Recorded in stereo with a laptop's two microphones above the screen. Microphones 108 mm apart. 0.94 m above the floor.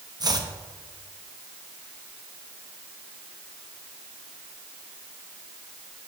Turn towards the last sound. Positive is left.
turn(degrees=-40)  # may be behind; listen again after turning